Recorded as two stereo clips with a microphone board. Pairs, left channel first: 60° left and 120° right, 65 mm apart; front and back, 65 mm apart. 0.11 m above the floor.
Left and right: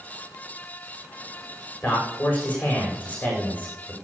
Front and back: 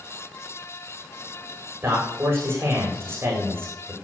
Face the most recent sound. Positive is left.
turn(degrees=130)